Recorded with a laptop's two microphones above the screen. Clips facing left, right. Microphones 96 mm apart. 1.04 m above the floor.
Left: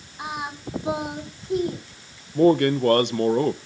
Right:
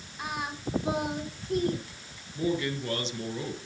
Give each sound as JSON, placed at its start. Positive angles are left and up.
{"t": 0.2, "sound": "singing", "side_deg": 20, "distance_m": 2.5}
{"t": 2.4, "sound": "a man speaking", "side_deg": 60, "distance_m": 0.6}